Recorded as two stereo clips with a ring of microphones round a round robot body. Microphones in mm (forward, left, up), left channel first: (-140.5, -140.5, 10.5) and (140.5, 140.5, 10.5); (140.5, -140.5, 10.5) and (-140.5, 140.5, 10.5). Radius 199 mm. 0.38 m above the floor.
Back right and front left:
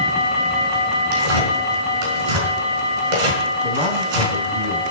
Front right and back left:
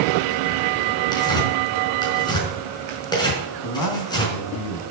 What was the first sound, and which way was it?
Tearing paper, 35° left.